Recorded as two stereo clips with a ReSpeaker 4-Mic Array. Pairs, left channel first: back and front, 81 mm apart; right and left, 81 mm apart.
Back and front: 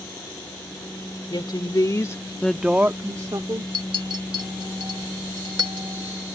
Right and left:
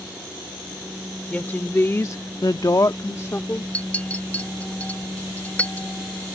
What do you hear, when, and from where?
1.3 s a woman speaking: 160° right; by 3.6 s 30° right
3.7 s a clink: 20° right